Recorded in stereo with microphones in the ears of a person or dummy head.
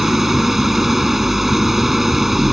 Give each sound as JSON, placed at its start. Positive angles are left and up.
{"t": 0.0, "sound": "an engine running", "side_deg": -5}